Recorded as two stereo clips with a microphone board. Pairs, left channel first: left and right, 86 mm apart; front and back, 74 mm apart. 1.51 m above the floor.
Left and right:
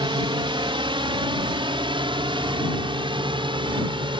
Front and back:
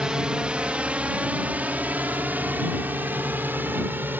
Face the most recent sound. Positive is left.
turn(degrees=-115)